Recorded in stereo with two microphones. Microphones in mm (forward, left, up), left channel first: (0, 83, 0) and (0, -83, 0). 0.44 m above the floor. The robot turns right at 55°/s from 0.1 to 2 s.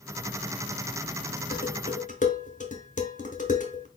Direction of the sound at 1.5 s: 65° left (ahead or behind).